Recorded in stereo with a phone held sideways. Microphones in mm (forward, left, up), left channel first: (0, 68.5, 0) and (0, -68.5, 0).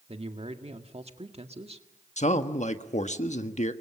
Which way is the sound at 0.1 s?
50° right (ahead or behind).